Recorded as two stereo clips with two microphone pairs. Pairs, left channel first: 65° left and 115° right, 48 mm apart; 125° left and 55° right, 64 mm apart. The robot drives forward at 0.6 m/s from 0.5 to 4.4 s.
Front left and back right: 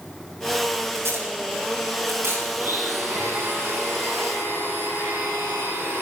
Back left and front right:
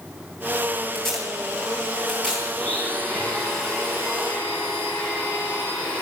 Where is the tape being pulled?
155° right, 8.5 m.